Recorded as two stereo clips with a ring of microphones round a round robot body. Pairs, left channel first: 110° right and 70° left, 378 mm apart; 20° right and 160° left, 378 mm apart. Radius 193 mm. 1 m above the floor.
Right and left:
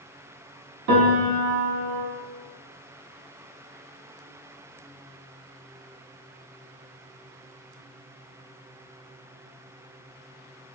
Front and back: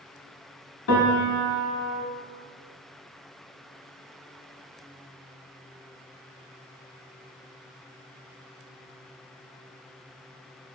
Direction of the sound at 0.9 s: 25° left.